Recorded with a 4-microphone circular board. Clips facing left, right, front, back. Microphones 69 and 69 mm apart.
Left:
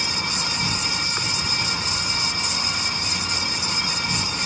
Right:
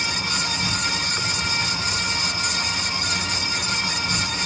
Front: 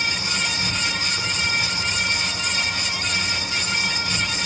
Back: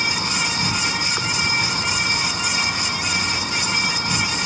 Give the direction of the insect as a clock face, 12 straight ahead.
7 o'clock.